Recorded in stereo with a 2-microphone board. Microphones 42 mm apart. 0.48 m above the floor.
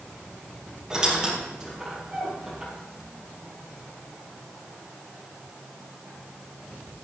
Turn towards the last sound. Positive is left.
turn(degrees=-15)  # may be behind; listen again after turning